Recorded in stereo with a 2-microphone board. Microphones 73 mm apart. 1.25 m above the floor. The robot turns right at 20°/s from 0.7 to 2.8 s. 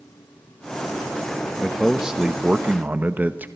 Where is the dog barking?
I don't hear a dog barking.